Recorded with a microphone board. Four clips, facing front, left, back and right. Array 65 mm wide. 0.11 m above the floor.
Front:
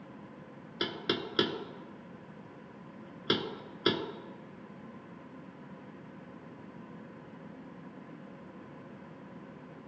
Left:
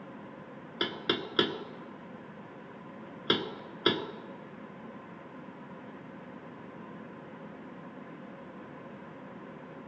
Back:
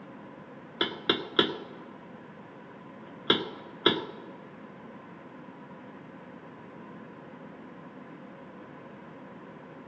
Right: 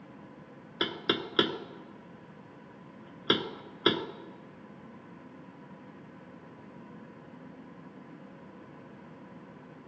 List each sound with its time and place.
0.8 s knocking: 165° right, 0.8 m